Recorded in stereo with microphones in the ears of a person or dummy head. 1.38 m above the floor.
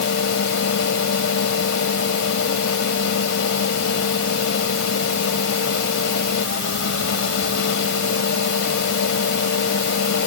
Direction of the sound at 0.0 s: 70° left (ahead or behind).